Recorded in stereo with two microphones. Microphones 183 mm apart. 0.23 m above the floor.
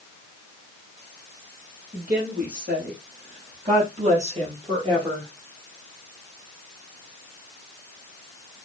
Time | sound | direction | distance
1.9 | a woman speaking | 50° right (ahead or behind) | 6 m